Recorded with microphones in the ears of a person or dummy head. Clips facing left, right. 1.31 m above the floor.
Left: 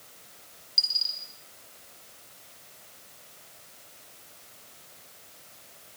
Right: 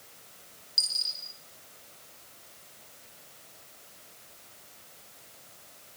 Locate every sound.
0.8 s a dropped coin: 5° left (ahead or behind), 3 m